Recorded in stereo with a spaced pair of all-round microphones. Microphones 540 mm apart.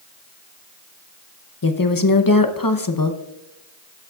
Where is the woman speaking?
40° left (ahead or behind), 0.8 m.